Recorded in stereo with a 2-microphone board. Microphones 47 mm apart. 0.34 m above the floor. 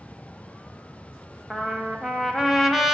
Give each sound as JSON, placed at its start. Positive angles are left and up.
{"t": 1.5, "sound": "a trumpet", "side_deg": -5, "distance_m": 0.8}